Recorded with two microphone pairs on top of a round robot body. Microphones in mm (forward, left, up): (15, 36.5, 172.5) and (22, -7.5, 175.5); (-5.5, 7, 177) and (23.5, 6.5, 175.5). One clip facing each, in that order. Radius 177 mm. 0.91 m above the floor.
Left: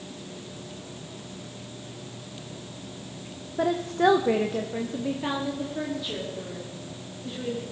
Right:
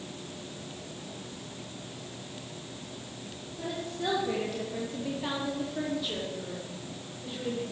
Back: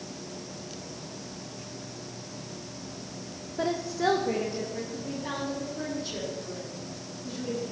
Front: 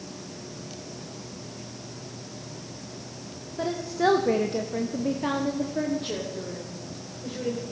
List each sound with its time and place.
3.6 s a woman speaking: 95° left, 1.3 m; by 7.6 s 5° left, 5 m